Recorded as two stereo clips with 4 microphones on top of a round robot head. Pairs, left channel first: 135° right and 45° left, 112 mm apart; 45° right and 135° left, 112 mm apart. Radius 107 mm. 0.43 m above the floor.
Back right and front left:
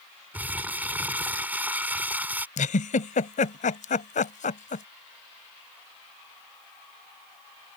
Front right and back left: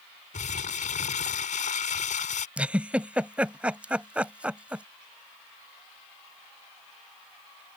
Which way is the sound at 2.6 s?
145° right.